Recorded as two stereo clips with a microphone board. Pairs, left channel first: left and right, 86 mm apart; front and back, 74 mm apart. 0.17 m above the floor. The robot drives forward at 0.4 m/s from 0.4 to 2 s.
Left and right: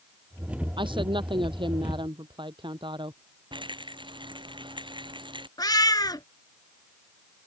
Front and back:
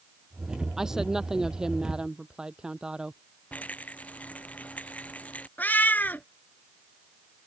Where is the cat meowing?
60° left.